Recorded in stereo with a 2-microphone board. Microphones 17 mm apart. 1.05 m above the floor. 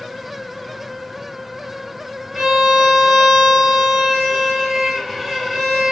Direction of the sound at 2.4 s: 5° left (ahead or behind).